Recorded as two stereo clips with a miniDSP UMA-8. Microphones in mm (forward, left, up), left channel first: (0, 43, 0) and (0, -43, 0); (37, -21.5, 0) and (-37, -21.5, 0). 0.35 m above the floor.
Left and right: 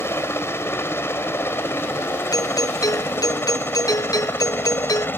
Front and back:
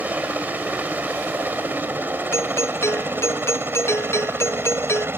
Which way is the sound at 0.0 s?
130° left.